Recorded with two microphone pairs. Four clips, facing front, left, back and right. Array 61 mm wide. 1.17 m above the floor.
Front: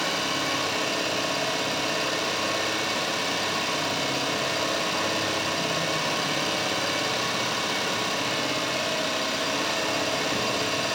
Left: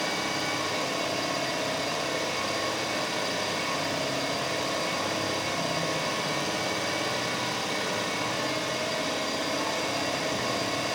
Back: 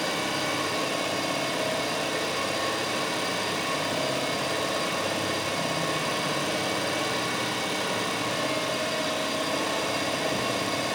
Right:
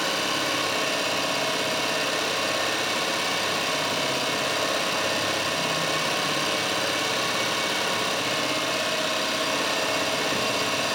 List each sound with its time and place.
0.0 s an engine running: 65° right, 5.5 m